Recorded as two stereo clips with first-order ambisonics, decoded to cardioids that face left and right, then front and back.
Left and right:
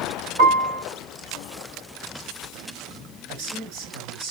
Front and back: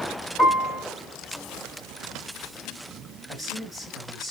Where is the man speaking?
75° right, 5 m.